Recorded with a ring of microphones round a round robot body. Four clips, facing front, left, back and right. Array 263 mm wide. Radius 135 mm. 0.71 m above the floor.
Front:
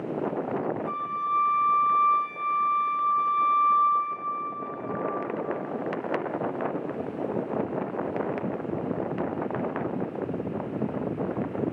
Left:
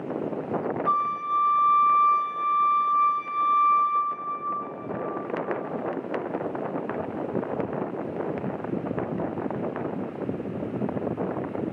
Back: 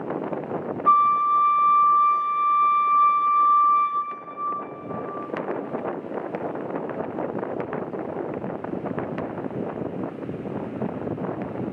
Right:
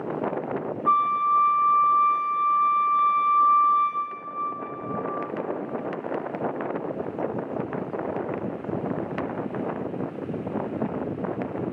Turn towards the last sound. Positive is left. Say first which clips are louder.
# right 6 dB, back 11 dB
turn(degrees=-165)